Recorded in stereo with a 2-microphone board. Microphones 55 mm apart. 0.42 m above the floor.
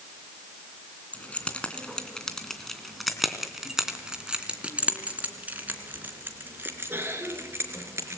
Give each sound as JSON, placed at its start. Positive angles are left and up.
{"t": 1.1, "sound": "keys jangling", "side_deg": 25, "distance_m": 3.0}